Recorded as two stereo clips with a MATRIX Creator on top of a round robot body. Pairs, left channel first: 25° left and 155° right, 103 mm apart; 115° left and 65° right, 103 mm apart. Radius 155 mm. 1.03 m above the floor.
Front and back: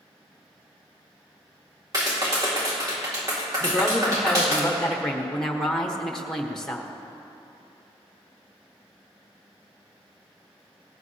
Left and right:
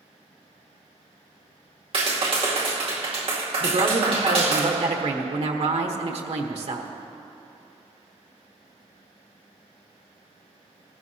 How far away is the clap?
About 2.5 m.